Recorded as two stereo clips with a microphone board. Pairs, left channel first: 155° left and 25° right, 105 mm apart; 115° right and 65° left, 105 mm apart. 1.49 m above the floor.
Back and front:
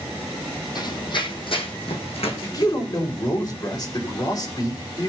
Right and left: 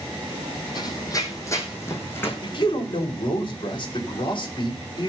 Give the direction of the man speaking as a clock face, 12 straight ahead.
5 o'clock.